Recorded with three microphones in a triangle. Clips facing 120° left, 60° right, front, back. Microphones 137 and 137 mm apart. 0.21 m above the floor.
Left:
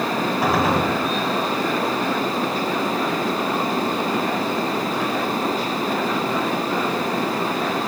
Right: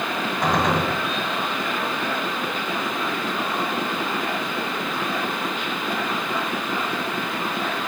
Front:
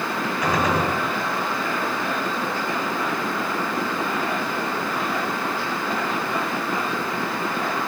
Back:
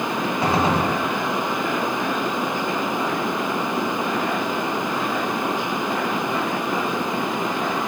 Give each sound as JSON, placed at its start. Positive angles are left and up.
{"t": 0.4, "sound": "a gunshot", "azimuth_deg": -160, "distance_m": 1.4}